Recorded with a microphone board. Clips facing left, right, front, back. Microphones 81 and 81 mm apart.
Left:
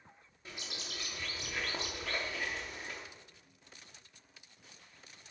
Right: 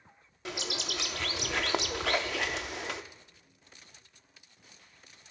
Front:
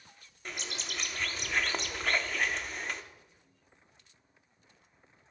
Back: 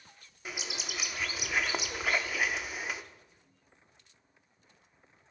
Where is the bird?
95° right, 0.6 m.